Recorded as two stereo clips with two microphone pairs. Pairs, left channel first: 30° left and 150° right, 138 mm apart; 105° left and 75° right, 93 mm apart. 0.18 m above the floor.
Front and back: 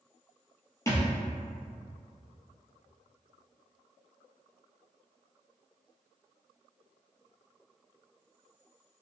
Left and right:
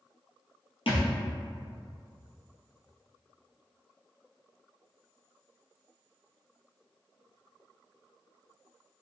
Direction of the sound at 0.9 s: 100° left.